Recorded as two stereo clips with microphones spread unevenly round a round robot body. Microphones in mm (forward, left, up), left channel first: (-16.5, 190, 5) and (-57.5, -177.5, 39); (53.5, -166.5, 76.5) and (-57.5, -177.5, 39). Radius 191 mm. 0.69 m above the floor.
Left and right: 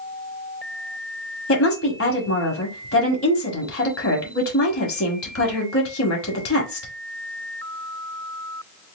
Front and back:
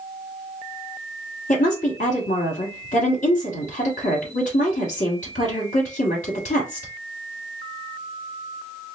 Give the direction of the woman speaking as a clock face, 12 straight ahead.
11 o'clock.